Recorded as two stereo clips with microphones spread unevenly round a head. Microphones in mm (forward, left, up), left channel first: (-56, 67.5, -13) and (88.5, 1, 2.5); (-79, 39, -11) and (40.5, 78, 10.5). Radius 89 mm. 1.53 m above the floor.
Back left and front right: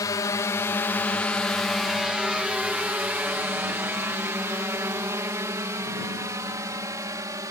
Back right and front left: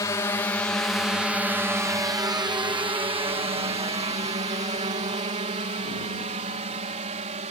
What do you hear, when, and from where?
0.0 s a drone: 160° right; by 7.5 s 45° left